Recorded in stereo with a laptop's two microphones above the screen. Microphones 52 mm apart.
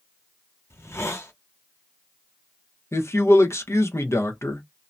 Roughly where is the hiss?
Left.